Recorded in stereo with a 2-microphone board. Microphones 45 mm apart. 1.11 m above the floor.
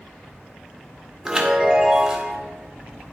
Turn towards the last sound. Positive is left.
turn(degrees=-15)  # may be behind; listen again after turning